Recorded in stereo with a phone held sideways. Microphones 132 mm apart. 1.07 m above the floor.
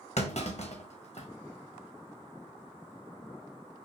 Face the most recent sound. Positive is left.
turn(degrees=55)  # may be behind; listen again after turning